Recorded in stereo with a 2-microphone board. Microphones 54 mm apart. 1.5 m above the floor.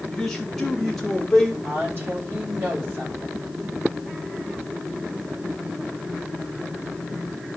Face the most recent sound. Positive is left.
turn(degrees=-50)  # may be behind; listen again after turning